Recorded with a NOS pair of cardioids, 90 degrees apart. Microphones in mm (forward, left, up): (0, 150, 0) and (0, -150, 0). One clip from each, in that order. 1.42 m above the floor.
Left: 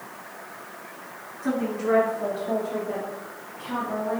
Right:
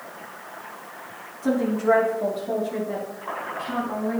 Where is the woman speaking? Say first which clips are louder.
Right 4 dB; 25° right, 4 m; by 4.2 s 35° right, 2.5 m.